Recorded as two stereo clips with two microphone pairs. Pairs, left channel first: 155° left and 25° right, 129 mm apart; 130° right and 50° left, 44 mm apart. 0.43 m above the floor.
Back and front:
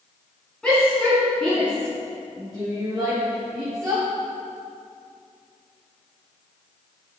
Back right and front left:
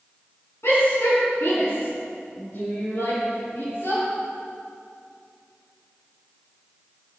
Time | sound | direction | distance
0.6 | a shout | 120° right | 3.5 m